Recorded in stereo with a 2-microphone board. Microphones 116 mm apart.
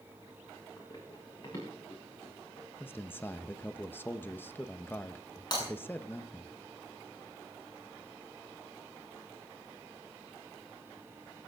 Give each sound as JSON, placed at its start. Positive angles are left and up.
{"t": 0.8, "sound": "running footsteps", "side_deg": 30, "distance_m": 8.0}
{"t": 2.8, "sound": "a man speaking", "side_deg": 20, "distance_m": 1.0}
{"t": 5.5, "sound": "breaking glass", "side_deg": 35, "distance_m": 7.0}